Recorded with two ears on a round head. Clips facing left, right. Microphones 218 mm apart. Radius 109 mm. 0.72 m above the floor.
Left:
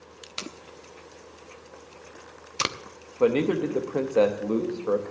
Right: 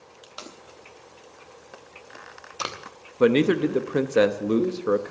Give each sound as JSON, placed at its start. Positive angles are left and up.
{"t": 0.2, "sound": "tape being pulled", "side_deg": 35, "distance_m": 0.8}
{"t": 3.2, "sound": "a man speaking", "side_deg": -25, "distance_m": 0.8}